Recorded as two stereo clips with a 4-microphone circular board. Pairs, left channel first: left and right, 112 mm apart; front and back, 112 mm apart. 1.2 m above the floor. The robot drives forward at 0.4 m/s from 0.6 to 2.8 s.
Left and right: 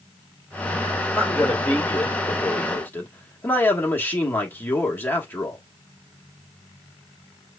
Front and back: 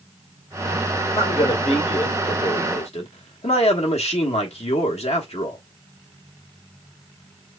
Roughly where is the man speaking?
Ahead.